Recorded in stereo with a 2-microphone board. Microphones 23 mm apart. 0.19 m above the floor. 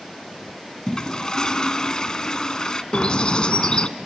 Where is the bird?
40° left (ahead or behind), 1.1 m.